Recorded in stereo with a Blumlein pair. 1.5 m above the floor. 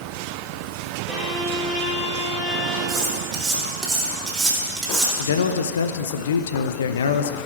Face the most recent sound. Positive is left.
turn(degrees=65)